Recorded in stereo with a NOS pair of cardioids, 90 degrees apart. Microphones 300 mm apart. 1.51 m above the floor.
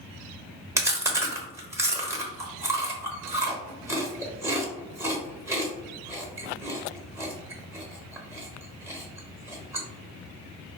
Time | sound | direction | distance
0.8 | chewing | 10° right | 1.0 m